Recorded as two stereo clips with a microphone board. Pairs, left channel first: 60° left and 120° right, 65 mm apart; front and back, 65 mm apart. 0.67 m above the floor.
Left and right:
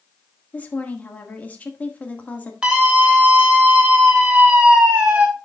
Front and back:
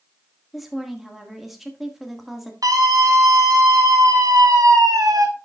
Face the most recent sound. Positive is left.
turn(degrees=165)